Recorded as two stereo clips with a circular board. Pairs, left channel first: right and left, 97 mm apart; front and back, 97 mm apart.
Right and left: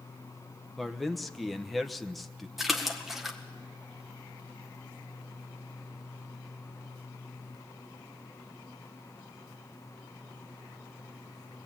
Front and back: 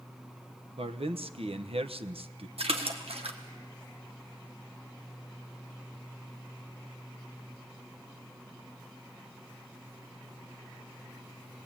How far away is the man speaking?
About 1.0 m.